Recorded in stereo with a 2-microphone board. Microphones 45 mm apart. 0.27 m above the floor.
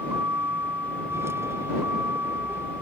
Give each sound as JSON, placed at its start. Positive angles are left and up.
{"t": 0.0, "sound": "a vehicle", "side_deg": -70}